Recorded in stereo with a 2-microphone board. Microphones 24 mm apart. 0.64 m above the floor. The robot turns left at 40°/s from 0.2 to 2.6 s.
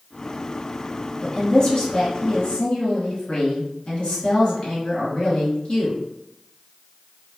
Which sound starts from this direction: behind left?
A woman speaking, at 1.2 s.